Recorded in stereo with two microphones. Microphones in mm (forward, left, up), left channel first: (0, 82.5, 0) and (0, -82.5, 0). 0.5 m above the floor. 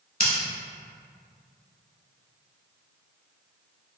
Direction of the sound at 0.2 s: 65° left (ahead or behind).